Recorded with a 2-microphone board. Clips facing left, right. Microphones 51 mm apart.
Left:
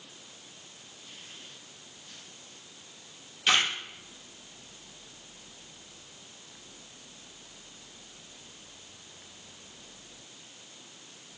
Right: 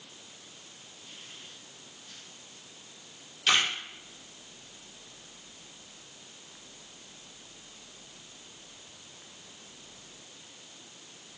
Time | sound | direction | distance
3.5 | a camera shutter | 20° left (ahead or behind) | 8.5 m